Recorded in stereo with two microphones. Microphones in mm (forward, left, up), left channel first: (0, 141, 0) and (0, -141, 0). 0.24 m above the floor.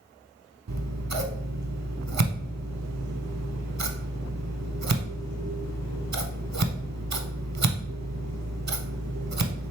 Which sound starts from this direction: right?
Scissors, at 0.7 s.